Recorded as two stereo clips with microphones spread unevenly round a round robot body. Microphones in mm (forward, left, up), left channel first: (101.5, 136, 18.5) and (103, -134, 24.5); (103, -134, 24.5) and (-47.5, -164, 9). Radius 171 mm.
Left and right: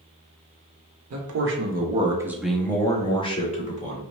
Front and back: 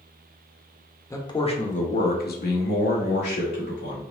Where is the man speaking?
60° right, 1.0 m; by 4.0 s 30° left, 2 m.